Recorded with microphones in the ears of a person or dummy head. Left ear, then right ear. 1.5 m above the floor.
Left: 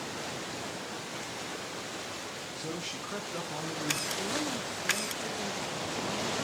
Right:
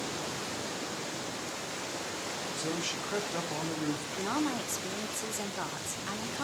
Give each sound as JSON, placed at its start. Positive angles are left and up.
{"t": 2.6, "sound": "a man speaking", "side_deg": -15, "distance_m": 1.1}
{"t": 4.2, "sound": "a woman speaking", "side_deg": -70, "distance_m": 1.3}